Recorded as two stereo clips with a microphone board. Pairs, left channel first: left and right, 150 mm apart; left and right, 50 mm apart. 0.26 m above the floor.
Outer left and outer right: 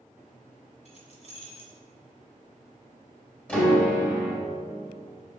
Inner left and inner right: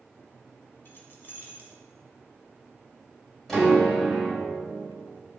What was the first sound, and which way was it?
Keys jangling, 50° left (ahead or behind).